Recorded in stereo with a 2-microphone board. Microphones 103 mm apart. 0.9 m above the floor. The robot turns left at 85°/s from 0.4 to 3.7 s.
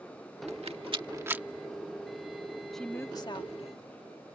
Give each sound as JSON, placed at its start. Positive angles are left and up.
{"t": 0.5, "sound": "a rattle", "side_deg": -80}
{"t": 2.7, "sound": "a woman speaking", "azimuth_deg": 180}